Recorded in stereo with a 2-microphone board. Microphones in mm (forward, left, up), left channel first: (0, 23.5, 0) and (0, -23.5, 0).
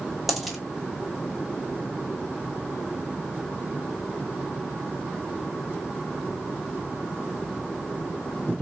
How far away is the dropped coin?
About 0.8 m.